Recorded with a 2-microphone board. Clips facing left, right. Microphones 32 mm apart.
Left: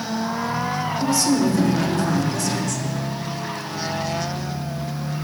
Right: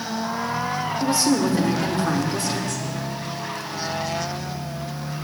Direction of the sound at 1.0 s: 35° right (ahead or behind).